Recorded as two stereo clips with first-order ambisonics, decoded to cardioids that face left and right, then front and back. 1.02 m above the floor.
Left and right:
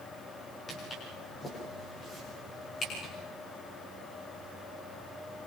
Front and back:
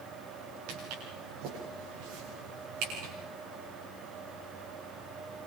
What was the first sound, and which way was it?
Footsteps, 160° left.